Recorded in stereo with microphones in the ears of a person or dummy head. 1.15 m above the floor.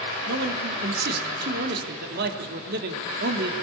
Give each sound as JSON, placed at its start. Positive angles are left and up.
{"t": 0.3, "sound": "a man speaking", "side_deg": -60, "distance_m": 3.5}